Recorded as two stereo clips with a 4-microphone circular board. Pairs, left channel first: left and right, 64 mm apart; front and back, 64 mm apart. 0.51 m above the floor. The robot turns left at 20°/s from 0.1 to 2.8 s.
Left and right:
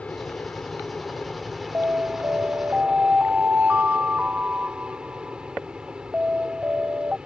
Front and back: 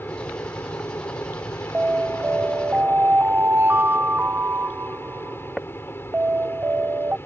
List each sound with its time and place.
0.0 s an aircraft: 30° left; by 7.3 s 20° right
1.7 s an alarm: 125° right; by 7.2 s 145° right